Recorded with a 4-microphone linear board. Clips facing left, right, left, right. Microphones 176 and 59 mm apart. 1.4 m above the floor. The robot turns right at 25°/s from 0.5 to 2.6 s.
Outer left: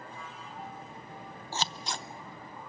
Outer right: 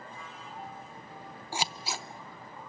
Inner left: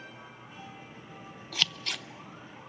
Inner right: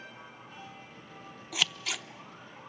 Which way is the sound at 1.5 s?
10° right (ahead or behind).